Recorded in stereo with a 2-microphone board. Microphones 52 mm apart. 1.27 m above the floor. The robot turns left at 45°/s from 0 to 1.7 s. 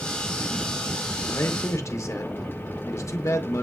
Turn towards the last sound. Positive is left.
turn(degrees=70)  # may be behind; listen again after turning